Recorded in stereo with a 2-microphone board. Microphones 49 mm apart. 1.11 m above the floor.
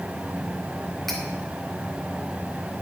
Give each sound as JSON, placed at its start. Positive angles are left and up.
{"t": 1.1, "sound": "cutlery clinking", "side_deg": 0, "distance_m": 2.5}